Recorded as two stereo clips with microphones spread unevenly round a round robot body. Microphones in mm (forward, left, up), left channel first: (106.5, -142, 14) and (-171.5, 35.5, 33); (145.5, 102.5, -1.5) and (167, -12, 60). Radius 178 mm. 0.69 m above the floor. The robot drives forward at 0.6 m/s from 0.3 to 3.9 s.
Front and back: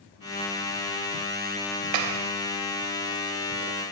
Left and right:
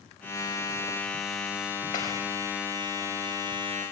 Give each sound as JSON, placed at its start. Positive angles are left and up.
{"t": 1.9, "sound": "a clap", "azimuth_deg": 160, "distance_m": 3.5}